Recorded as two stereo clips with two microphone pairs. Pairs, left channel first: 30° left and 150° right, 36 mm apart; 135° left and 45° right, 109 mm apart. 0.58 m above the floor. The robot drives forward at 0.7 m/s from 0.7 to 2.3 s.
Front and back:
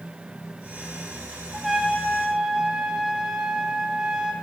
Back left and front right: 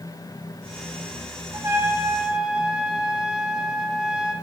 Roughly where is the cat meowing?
I don't hear a cat meowing.